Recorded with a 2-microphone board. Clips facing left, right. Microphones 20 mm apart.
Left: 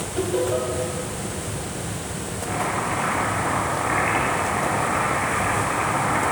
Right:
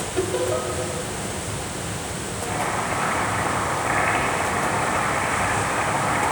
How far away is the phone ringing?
I don't hear a phone ringing.